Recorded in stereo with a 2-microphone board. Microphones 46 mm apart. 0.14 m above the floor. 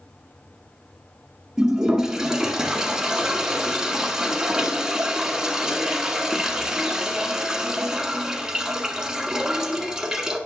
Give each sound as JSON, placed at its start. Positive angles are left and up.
{"t": 1.6, "sound": "a toilet flushing", "side_deg": -15, "distance_m": 1.4}